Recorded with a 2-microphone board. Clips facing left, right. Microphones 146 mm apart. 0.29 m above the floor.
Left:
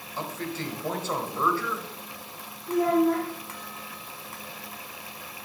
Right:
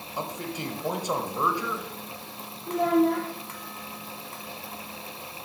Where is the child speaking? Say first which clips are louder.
Even; 75° right (ahead or behind), 3.5 m.